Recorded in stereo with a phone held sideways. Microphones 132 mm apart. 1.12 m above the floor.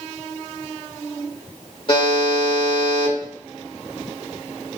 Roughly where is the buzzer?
Left.